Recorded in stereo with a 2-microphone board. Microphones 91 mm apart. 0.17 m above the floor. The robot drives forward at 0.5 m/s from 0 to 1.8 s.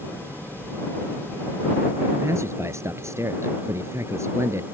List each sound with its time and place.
2.1 s a man speaking: 30° right (ahead or behind)